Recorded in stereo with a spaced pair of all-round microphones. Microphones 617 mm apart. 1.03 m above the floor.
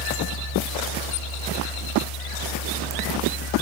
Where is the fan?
75° left (ahead or behind).